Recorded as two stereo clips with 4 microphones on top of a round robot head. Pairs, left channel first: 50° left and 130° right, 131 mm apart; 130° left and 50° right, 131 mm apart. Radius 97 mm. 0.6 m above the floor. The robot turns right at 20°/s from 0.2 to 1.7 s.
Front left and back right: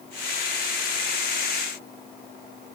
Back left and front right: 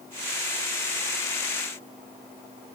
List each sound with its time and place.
Only background noise.